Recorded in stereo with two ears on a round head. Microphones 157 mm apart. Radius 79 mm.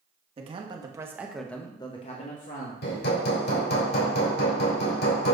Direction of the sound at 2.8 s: 65° left (ahead or behind).